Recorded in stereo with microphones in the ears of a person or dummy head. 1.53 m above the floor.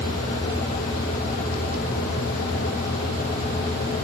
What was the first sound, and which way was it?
Only background noise.